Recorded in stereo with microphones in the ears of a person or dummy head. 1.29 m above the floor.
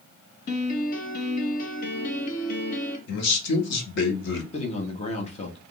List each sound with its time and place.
0.5 s a piano: 45° left (ahead or behind), 0.8 m
3.1 s a man speaking: 60° left (ahead or behind), 1.2 m
4.5 s a man speaking: 35° left (ahead or behind), 0.9 m